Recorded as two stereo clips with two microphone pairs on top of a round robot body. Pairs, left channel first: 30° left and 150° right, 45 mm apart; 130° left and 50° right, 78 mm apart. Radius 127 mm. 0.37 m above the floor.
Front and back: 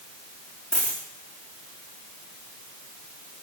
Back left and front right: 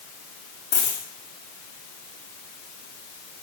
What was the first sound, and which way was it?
A dropped coin, 100° left.